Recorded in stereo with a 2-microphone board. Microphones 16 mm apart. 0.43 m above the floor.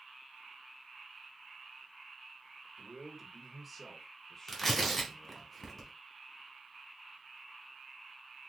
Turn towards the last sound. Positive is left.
turn(degrees=15)  # may be behind; listen again after turning